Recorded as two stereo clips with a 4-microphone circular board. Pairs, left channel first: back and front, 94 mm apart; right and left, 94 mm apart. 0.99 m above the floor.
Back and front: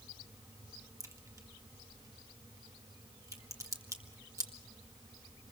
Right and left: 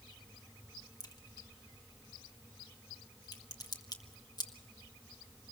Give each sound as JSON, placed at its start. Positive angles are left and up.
{"t": 1.0, "sound": "a crack", "azimuth_deg": -50, "distance_m": 1.8}